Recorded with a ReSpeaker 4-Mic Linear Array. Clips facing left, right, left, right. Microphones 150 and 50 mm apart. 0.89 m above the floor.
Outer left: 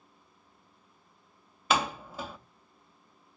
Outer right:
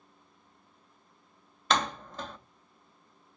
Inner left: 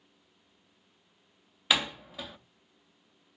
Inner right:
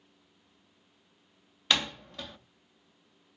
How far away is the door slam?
About 0.5 m.